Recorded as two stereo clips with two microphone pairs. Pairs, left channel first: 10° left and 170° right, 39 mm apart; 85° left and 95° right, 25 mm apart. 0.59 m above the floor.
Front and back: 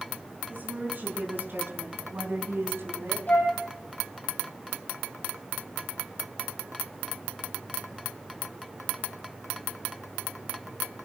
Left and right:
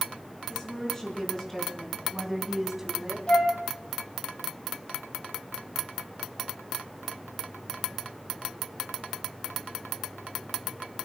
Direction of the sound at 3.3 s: 50° left.